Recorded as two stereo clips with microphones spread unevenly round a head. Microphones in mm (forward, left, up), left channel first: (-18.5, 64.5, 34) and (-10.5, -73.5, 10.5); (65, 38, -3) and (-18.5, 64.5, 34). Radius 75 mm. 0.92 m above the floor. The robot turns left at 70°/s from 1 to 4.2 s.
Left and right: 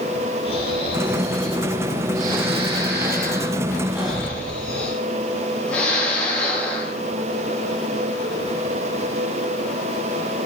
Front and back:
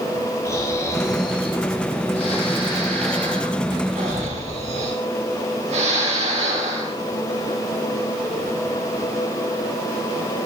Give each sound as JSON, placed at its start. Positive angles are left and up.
{"t": 0.5, "sound": "snoring", "azimuth_deg": 40, "distance_m": 8.5}